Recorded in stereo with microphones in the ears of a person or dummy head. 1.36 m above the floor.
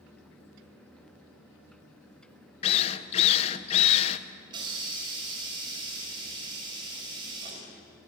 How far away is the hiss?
About 6.5 m.